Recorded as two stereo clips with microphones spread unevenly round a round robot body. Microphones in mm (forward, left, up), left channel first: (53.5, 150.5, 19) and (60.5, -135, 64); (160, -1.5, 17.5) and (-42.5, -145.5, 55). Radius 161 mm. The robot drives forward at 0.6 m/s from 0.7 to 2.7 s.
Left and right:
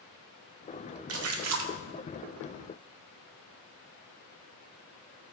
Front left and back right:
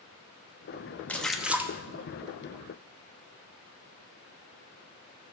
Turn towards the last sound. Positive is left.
turn(degrees=-100)